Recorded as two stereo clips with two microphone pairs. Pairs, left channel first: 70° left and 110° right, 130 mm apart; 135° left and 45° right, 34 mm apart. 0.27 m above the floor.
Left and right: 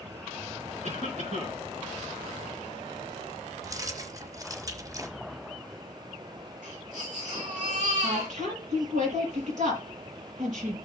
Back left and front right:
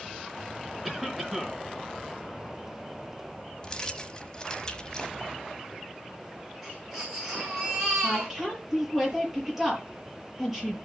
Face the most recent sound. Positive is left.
turn(degrees=-120)